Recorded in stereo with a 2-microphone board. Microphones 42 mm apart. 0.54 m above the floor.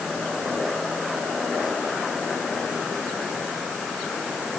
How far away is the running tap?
No running tap in this recording.